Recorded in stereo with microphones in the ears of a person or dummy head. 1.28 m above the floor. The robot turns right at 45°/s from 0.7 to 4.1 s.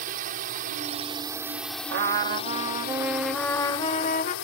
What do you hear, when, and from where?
0.0 s a drone: 45° right; by 4.5 s 105° left
1.9 s a trumpet: 60° right; by 4.3 s 40° left